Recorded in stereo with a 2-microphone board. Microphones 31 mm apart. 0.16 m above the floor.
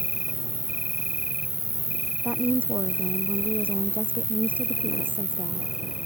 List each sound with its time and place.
0.0 s an insect: 55° right (ahead or behind)
2.2 s a woman speaking: 80° right